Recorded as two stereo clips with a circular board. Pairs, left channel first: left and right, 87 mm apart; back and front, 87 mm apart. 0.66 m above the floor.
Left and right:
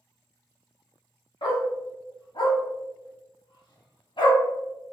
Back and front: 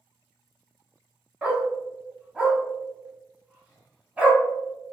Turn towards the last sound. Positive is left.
turn(degrees=75)